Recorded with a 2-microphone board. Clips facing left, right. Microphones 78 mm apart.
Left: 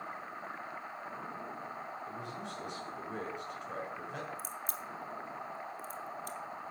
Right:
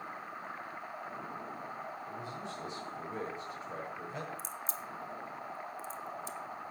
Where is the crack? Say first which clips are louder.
Even; 55° left (ahead or behind), 1.4 m.